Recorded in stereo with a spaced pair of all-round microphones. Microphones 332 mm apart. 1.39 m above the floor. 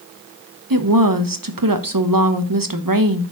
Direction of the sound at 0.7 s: 75° right (ahead or behind).